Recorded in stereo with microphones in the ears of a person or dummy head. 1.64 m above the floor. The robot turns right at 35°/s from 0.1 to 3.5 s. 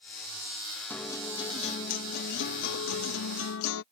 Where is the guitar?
15° left; by 3.8 s 105° left.